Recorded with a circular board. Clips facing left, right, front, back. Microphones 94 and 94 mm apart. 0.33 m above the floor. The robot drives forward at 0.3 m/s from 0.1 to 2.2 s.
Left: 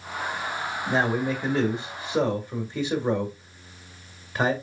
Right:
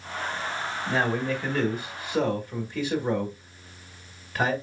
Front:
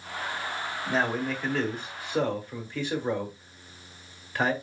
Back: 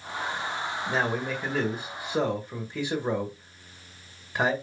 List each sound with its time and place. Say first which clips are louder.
0.9 s a man speaking: left 2 dB, front 1 dB; 90° left, 1.4 m; by 4.5 s 125° left, 1.5 m